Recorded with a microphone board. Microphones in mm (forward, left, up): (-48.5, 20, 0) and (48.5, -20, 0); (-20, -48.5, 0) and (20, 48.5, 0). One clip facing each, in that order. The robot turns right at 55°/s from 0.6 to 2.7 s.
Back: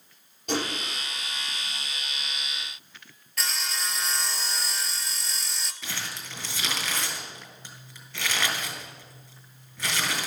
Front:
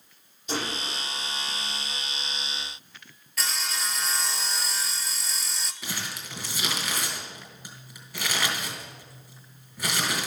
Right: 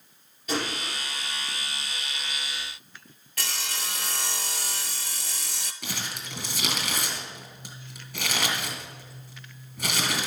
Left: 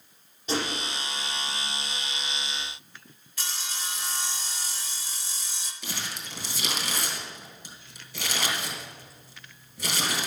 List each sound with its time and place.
0.5 s a gunshot: 125° left, 5 m; by 1.0 s 150° left, 5 m
3.4 s sawing: 110° right, 0.6 m
5.8 s crumpling: 105° right, 3 m